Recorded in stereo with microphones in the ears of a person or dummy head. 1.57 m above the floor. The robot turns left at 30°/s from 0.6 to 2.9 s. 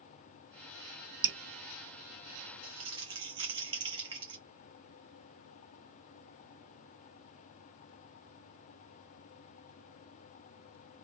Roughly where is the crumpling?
Right.